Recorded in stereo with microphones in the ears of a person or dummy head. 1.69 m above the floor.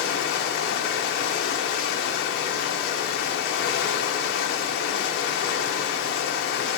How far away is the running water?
About 0.9 m.